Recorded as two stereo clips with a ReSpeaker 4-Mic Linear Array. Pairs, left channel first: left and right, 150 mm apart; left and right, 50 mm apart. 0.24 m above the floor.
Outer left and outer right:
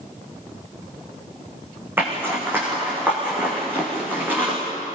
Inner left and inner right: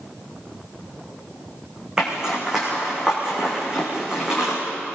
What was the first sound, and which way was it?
A zipper, 15° right (ahead or behind).